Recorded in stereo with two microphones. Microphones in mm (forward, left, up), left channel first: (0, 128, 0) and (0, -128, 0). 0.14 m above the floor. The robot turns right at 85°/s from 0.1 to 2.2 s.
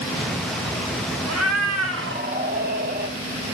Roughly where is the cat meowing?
Behind right.